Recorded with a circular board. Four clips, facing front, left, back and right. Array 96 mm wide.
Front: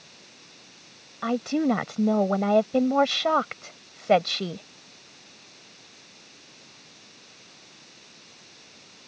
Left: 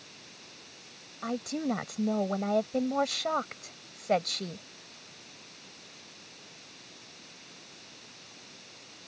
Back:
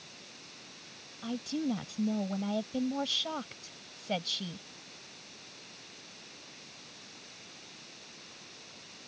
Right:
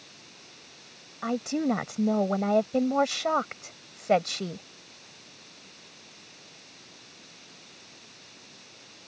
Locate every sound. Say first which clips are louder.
1.2 s a woman speaking: right 5 dB, front 10 dB; 20° right